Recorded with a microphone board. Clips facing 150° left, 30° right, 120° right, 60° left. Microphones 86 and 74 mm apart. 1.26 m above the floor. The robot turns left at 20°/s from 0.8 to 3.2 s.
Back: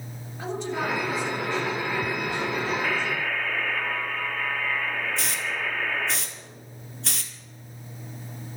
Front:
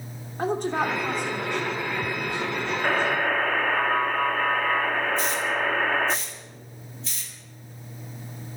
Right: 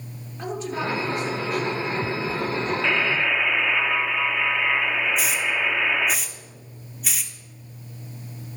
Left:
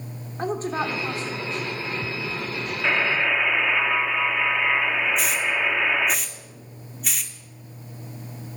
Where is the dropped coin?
No dropped coin in this recording.